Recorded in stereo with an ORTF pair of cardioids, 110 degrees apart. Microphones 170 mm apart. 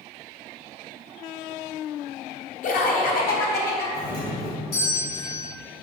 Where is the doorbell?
70° left, 1.7 m.